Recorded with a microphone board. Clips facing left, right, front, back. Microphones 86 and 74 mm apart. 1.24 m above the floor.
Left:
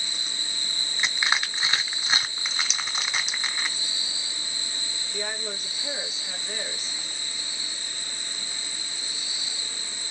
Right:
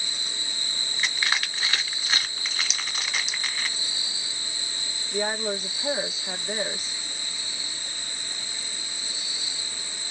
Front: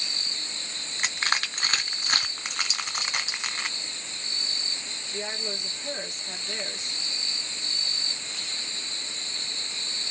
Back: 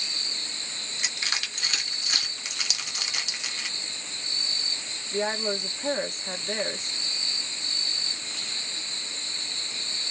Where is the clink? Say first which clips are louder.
Left 1 dB, front 4 dB; straight behind, 0.8 m.